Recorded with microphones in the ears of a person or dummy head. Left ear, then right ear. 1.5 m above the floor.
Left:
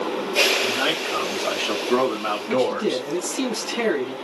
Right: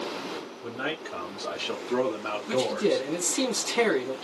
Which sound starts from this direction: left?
A man speaking, at 0.6 s.